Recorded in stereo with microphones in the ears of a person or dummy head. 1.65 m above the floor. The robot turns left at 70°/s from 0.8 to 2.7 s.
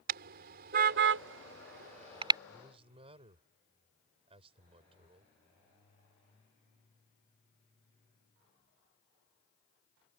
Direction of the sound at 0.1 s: 55° right (ahead or behind).